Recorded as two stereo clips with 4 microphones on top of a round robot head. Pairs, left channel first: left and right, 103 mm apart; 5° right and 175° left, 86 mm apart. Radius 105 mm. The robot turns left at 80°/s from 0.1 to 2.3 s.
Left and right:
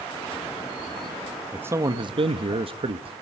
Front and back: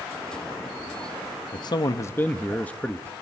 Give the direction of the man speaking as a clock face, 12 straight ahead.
12 o'clock.